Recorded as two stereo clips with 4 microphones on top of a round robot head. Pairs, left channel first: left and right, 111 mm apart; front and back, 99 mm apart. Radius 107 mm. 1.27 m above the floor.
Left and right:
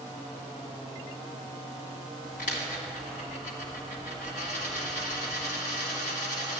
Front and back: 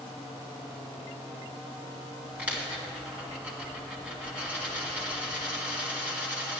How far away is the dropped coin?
About 2.0 m.